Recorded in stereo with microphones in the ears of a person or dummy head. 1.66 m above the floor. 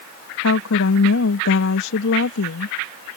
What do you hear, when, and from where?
0.4 s a woman speaking: 85° left